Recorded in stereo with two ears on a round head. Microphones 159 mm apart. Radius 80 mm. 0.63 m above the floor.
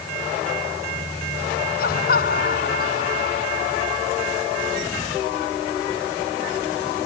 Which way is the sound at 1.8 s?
55° left (ahead or behind).